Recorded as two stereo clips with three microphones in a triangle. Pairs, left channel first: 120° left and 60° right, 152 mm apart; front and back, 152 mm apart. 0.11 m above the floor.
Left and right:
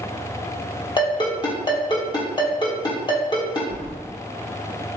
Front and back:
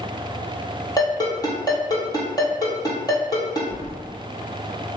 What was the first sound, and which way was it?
A ringtone, 60° left.